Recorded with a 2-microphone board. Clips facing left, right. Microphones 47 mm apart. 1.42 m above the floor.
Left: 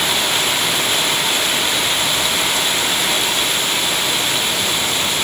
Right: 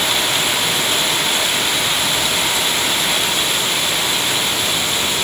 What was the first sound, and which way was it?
Only background noise.